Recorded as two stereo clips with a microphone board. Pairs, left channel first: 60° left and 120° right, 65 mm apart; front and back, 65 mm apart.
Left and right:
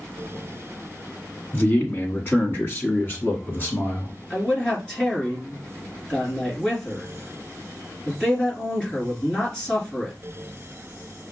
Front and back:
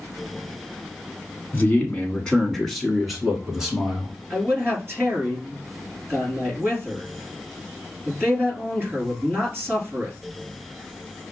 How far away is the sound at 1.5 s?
About 1.4 m.